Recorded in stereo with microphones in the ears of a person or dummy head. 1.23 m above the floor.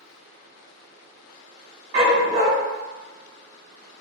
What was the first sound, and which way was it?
A dog barking, 30° right (ahead or behind).